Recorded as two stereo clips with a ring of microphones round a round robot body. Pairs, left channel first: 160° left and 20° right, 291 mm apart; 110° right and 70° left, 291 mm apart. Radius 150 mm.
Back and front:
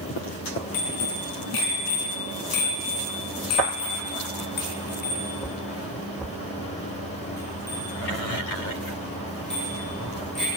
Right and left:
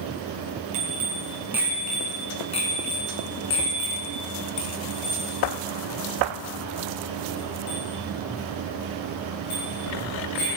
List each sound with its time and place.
0.7 s a bicycle bell: 135° left, 3.5 m; by 10.5 s 115° right, 11 m